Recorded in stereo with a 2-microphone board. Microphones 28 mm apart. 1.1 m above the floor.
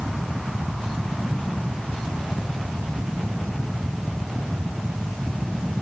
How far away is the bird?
I don't hear a bird.